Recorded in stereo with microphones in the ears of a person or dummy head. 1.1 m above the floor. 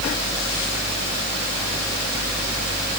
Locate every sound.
Only background noise.